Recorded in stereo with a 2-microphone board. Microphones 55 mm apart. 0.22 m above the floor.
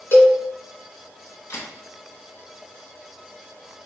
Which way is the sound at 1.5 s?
65° left (ahead or behind).